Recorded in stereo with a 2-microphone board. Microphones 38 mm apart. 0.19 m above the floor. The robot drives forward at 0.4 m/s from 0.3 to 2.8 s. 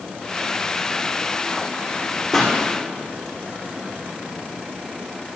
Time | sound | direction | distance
2.3 | a pop | centre (ahead or behind) | 4 m